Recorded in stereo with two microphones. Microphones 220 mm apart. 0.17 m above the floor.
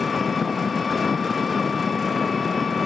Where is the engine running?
Centre (ahead or behind).